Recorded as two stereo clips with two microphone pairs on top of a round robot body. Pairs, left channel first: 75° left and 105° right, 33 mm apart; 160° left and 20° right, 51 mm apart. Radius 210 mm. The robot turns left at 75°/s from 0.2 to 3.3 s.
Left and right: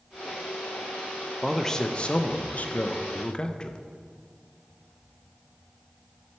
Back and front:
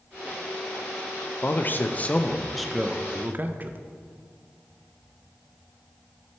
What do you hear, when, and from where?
1.4 s a man speaking: 165° left, 0.8 m; by 3.8 s 25° left, 0.8 m